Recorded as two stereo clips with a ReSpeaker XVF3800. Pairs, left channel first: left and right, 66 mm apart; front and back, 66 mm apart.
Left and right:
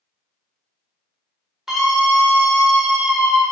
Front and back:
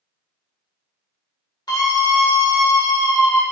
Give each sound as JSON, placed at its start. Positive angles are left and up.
{"t": 1.7, "sound": "a scream", "azimuth_deg": -5, "distance_m": 4.0}